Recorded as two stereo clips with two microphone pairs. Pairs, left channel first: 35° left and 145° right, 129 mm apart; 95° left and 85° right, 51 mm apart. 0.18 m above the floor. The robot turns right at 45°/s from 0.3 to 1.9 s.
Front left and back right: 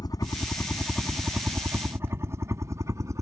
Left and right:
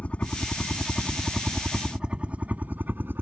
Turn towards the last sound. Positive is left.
turn(degrees=-95)